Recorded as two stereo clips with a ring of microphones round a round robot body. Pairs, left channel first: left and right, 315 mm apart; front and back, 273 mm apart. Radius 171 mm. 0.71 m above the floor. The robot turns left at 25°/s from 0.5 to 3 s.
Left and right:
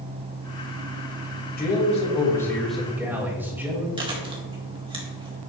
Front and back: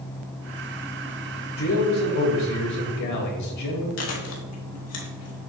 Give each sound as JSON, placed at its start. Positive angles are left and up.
{"t": 1.6, "sound": "a man speaking", "azimuth_deg": 30, "distance_m": 3.0}
{"t": 4.0, "sound": "chewing", "azimuth_deg": -15, "distance_m": 2.0}